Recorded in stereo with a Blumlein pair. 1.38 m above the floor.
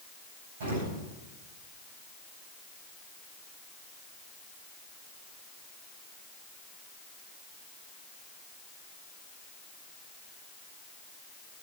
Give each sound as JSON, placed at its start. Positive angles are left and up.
{"t": 0.6, "sound": "an explosion", "azimuth_deg": -60, "distance_m": 9.0}